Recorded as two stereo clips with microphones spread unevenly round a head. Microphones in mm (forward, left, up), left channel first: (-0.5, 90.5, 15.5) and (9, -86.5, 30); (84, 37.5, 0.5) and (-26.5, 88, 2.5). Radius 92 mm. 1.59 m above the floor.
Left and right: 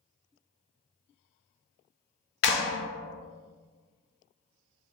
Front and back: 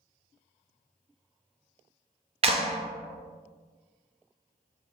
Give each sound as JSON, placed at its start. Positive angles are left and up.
{"t": 2.4, "sound": "a clap", "azimuth_deg": 115, "distance_m": 0.5}